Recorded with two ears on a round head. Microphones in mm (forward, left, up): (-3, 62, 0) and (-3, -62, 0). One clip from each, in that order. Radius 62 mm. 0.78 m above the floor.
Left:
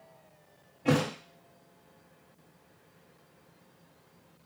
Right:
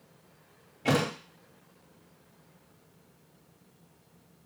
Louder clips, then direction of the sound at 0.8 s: Right 1 dB; 65° right (ahead or behind).